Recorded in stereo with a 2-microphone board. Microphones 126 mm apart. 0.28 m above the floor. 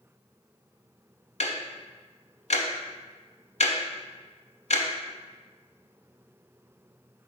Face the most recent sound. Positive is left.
turn(degrees=60)  # may be behind; listen again after turning